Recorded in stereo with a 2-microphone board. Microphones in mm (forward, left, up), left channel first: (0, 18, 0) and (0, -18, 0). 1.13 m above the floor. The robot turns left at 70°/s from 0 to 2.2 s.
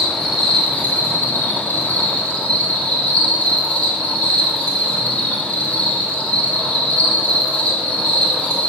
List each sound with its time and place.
0.0 s an insect: 165° right, 1.7 m; by 8.7 s 40° left, 1.7 m